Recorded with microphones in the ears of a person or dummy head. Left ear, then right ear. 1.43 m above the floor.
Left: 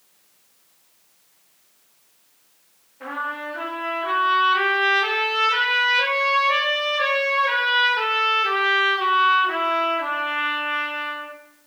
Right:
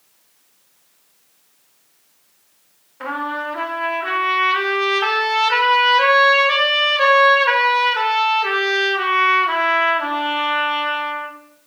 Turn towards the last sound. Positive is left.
turn(degrees=-45)  # may be behind; listen again after turning